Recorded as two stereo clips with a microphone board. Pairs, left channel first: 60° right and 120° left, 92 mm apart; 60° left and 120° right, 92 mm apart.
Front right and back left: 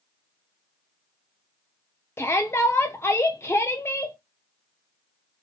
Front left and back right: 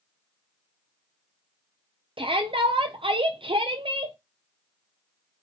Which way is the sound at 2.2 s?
120° right.